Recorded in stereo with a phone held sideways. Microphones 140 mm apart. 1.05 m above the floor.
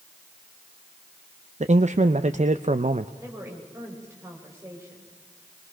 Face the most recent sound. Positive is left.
turn(degrees=-20)  # may be behind; listen again after turning